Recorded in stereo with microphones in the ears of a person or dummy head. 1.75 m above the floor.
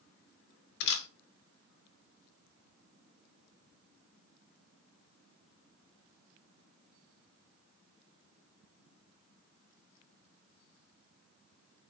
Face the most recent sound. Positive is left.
turn(degrees=70)  # may be behind; listen again after turning